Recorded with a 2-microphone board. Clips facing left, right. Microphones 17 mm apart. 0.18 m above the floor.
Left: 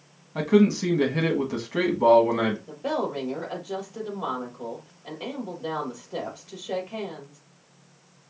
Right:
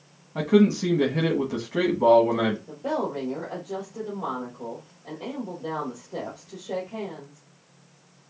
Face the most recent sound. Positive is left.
turn(degrees=65)  # may be behind; listen again after turning